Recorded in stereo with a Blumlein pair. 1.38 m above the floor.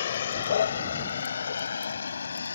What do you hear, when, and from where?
0.0 s a vehicle: 60° left; by 2.6 s 75° left